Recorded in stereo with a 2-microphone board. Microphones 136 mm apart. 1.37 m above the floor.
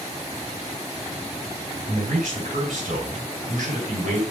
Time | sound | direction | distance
1.9 | a man speaking | 85° right | 5.5 m